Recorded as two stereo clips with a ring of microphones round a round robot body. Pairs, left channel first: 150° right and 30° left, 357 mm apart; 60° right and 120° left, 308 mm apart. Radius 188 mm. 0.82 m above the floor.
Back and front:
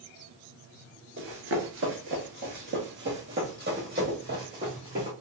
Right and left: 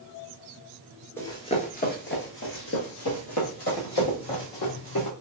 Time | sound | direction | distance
1.2 | running footsteps | 15° left | 0.9 m